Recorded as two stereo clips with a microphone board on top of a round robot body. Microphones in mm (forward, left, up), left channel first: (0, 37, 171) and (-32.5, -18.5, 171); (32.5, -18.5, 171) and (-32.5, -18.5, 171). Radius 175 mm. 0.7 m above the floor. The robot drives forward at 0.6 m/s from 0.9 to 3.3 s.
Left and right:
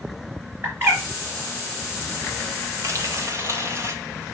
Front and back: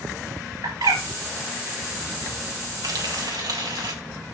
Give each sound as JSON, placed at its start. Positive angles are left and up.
{"t": 0.6, "sound": "a bird", "azimuth_deg": -175, "distance_m": 3.5}
{"t": 2.8, "sound": "frying", "azimuth_deg": -160, "distance_m": 1.9}